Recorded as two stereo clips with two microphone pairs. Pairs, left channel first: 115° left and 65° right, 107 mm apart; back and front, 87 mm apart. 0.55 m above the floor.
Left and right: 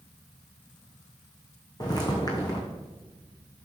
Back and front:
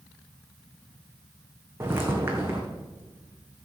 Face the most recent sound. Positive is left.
turn(degrees=60)